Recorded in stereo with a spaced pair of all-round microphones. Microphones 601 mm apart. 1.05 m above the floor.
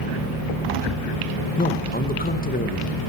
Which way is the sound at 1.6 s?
15° left (ahead or behind).